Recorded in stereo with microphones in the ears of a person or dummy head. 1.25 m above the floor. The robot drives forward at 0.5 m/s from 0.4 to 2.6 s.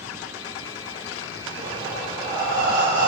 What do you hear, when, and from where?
1.6 s breathing: 30° right (ahead or behind), 0.5 m; by 3.1 s 15° right (ahead or behind), 1.0 m